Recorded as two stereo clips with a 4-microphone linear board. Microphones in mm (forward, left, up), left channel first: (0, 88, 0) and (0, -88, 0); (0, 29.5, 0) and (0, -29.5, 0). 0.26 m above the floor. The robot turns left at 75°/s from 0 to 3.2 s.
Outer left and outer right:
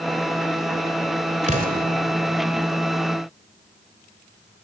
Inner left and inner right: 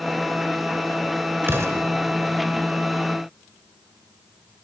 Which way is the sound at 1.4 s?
40° right (ahead or behind).